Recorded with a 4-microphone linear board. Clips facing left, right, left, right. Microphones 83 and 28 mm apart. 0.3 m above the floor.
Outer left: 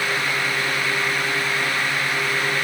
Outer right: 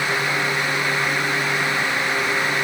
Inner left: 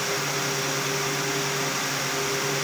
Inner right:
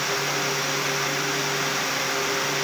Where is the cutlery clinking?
No cutlery clinking in this recording.